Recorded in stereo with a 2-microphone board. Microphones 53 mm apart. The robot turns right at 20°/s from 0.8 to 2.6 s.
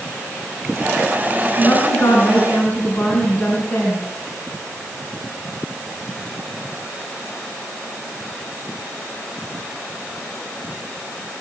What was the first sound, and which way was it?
A woman speaking, 50° left (ahead or behind).